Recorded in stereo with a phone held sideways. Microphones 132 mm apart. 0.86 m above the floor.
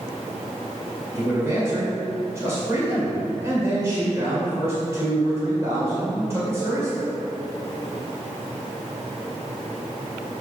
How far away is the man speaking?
About 2.5 m.